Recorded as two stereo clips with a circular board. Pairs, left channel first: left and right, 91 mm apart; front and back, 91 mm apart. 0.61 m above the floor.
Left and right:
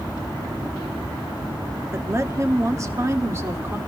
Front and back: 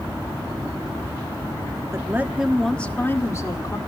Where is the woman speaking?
135° right, 1.3 m; by 3.8 s 35° right, 1.8 m.